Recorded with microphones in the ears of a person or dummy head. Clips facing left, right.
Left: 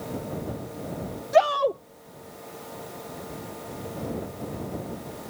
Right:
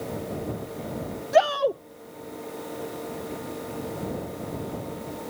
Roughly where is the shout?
Centre.